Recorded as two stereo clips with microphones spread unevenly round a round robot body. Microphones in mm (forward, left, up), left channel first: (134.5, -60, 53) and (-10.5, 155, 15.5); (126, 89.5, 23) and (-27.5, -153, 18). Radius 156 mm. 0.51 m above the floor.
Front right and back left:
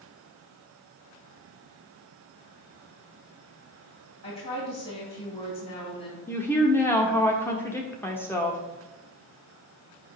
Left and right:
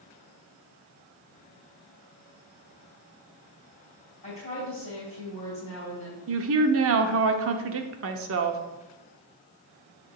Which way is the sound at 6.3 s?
145° right.